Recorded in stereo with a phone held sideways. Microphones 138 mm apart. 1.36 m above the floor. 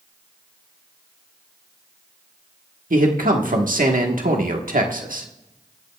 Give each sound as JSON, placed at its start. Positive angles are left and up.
{"t": 2.9, "sound": "a man speaking", "side_deg": -90, "distance_m": 1.3}